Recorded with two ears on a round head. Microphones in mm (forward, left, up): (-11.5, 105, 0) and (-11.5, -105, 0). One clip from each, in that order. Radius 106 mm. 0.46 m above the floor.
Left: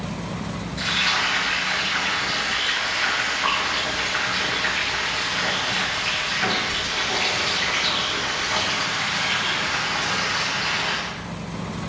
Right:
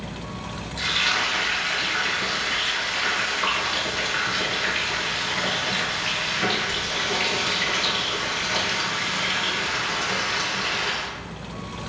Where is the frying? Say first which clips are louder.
Left 1 dB; 40° right (ahead or behind), 1.8 m.